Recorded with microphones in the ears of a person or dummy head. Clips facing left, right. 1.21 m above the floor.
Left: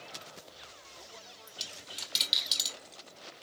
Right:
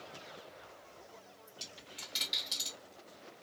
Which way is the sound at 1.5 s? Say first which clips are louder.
Left 2 dB; 40° left (ahead or behind).